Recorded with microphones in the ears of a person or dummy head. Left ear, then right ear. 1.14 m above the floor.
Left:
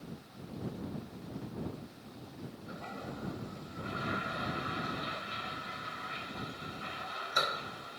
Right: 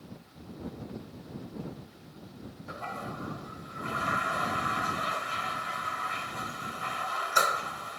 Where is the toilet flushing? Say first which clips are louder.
Right 7 dB; 30° right (ahead or behind).